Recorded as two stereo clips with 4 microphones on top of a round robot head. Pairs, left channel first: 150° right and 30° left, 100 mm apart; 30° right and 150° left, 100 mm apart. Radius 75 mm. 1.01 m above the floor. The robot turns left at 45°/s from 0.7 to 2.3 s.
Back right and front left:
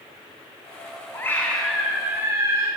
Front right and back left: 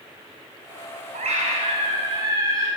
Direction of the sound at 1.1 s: 145° left.